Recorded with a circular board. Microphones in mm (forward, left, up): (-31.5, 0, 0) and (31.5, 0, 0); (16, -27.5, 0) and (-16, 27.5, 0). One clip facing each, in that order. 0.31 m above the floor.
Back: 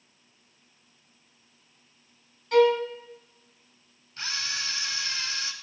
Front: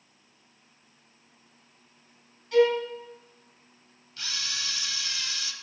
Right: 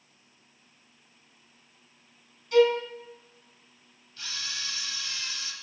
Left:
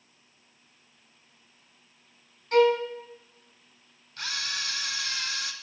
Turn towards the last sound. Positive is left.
turn(degrees=130)